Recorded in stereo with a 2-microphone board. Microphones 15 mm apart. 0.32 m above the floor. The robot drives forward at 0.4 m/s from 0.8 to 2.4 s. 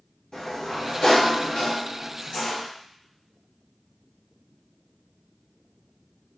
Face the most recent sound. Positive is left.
turn(degrees=45)  # may be behind; listen again after turning